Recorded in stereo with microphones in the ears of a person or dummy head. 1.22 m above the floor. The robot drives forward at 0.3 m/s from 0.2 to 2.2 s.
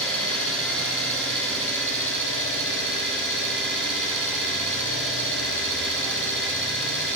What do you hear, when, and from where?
0.0 s an engine running: 10° left (ahead or behind), 6 m; by 7.2 s 5° left (ahead or behind), 6.5 m